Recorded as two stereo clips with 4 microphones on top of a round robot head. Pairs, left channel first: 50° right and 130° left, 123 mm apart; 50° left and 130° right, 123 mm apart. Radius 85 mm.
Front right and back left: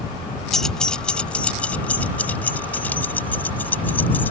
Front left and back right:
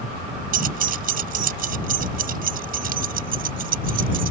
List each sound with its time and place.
0.5 s keys jangling: 140° right; by 4.3 s 130° right